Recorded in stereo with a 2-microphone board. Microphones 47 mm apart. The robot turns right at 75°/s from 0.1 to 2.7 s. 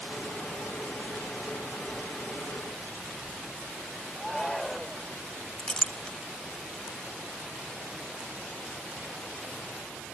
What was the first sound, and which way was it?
A shout, 5° left (ahead or behind).